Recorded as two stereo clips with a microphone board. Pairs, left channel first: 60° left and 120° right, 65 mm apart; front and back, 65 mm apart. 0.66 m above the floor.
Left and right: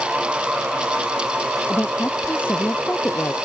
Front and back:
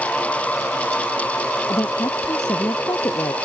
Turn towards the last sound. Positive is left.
turn(degrees=0)